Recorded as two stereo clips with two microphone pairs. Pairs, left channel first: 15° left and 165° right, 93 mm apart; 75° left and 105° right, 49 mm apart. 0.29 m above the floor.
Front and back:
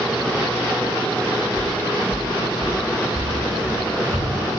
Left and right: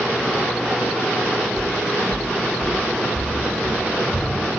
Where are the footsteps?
85° left, 1.0 m; by 4.3 s 110° left, 4 m.